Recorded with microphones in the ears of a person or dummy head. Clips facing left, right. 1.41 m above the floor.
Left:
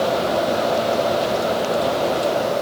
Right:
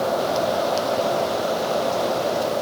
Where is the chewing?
I don't hear chewing.